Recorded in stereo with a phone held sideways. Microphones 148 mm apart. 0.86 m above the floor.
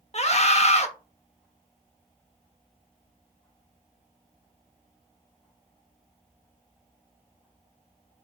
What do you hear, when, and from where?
0.1 s a scream: 45° left (ahead or behind), 0.7 m